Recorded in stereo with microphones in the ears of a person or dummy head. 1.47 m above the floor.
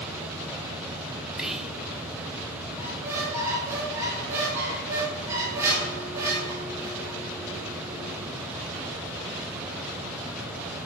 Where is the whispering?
Centre (ahead or behind), 0.9 m.